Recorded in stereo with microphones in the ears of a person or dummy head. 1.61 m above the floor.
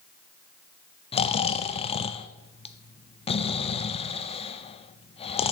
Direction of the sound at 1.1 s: 30° left (ahead or behind).